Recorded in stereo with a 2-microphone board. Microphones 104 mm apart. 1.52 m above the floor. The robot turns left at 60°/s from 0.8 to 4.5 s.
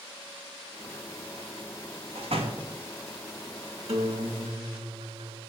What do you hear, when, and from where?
2.1 s a door slam: 75° right (ahead or behind), 1.8 m; by 2.8 s 40° right (ahead or behind), 1.8 m
3.9 s a guitar: 80° right, 2.5 m; by 5.4 s 115° right, 2.5 m